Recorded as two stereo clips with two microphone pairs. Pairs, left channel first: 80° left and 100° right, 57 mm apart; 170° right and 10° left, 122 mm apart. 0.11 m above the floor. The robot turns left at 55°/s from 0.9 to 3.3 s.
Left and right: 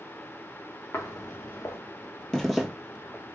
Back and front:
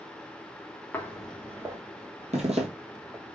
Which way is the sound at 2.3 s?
Straight ahead.